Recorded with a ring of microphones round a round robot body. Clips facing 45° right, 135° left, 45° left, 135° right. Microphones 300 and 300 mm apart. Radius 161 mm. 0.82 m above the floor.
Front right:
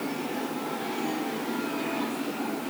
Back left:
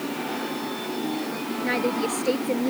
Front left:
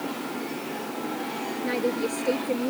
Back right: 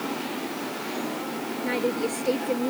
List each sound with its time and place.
1.6 s a woman speaking: 135° left